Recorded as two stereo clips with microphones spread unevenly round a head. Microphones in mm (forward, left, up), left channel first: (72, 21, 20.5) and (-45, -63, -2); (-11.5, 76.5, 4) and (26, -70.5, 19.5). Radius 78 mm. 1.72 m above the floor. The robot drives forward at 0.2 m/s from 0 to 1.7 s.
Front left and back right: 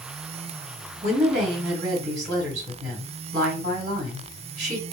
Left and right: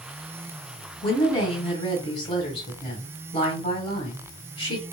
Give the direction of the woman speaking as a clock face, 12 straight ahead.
6 o'clock.